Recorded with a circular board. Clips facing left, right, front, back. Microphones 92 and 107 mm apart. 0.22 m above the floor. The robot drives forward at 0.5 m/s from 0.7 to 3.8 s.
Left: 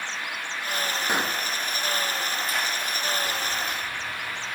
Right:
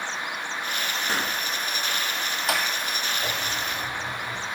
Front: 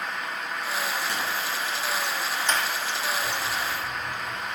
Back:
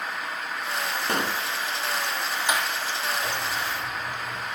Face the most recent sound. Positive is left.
turn(degrees=-110)